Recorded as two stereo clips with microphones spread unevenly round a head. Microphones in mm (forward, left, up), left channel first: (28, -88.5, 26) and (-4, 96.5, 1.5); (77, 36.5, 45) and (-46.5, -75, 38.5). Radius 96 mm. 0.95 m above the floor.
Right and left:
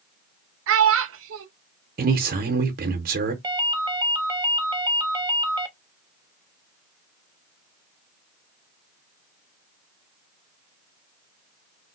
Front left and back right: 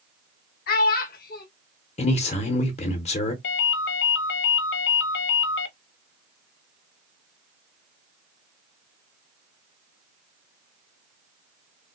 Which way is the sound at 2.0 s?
85° left.